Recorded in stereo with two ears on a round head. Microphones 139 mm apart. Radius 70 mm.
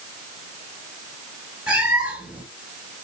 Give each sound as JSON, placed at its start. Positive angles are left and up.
{"t": 1.7, "sound": "a cat meowing", "side_deg": -10, "distance_m": 4.0}